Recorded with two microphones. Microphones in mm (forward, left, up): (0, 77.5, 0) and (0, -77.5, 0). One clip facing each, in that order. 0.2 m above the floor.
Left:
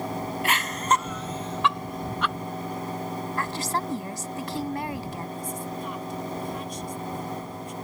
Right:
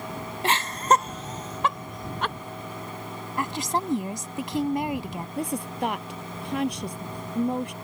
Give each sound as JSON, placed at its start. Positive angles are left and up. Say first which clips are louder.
{"t": 0.4, "sound": "laughter", "louder": "right 5 dB", "side_deg": -30}
{"t": 3.4, "sound": "a woman speaking", "louder": "right 4 dB", "side_deg": -20}
{"t": 5.4, "sound": "a woman speaking", "louder": "right 4 dB", "side_deg": -75}